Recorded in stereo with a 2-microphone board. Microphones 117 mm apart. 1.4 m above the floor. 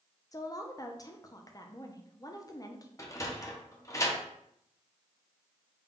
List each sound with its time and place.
0.3 s a woman speaking: 30° left (ahead or behind), 0.5 m
3.0 s a sliding door: 25° left (ahead or behind), 0.6 m